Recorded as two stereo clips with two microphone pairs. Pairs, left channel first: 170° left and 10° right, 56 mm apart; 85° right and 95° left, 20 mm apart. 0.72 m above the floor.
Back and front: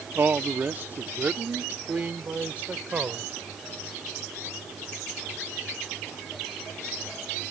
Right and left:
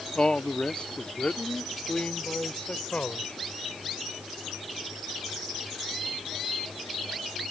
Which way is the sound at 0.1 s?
50° right.